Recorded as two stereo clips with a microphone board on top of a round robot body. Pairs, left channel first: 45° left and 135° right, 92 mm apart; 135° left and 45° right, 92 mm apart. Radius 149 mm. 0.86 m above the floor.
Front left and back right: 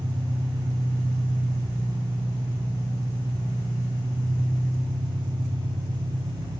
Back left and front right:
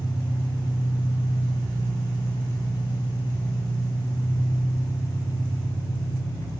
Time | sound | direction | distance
0.0 | an engine running | 170° right | 0.7 m